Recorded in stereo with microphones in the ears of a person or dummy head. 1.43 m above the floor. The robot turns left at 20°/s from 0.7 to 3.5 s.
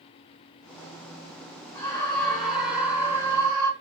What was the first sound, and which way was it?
A scream, 15° left.